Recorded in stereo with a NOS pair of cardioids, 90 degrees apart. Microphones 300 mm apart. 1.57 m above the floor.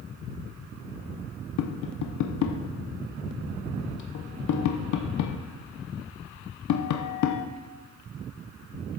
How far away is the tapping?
About 0.9 m.